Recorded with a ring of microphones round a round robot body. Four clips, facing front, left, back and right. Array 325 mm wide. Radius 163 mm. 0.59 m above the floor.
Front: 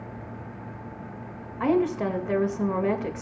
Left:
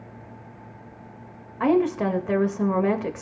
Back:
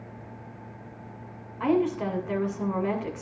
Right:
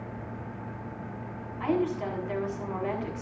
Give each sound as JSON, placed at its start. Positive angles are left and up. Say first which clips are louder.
{"t": 1.6, "sound": "a woman speaking", "louder": "left 7 dB, front 1 dB", "azimuth_deg": 70, "distance_m": 2.0}